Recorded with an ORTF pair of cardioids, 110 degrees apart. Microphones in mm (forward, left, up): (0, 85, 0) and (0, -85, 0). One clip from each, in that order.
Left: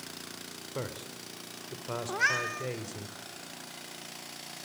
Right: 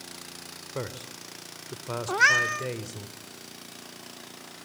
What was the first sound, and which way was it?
A man speaking, 15° right.